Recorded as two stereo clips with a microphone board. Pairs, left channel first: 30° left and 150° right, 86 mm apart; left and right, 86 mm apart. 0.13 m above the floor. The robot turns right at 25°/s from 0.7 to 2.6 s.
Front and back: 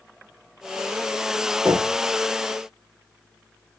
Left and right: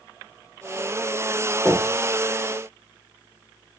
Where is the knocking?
175° left, 1.0 m; by 2.0 s 175° right, 1.0 m.